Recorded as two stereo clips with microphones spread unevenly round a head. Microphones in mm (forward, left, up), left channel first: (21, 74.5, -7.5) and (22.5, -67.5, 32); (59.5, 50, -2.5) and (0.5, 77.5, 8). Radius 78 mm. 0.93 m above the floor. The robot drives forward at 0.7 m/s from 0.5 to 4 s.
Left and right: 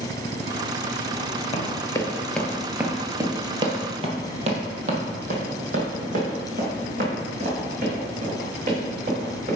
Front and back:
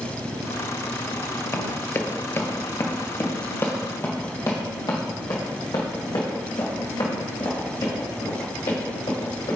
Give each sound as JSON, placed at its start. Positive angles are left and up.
{"t": 1.5, "sound": "running footsteps", "azimuth_deg": 30, "distance_m": 1.0}